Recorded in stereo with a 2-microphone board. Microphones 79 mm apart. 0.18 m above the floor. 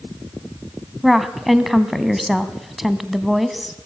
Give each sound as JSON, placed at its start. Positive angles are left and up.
{"t": 1.0, "sound": "a woman speaking", "side_deg": 0, "distance_m": 1.2}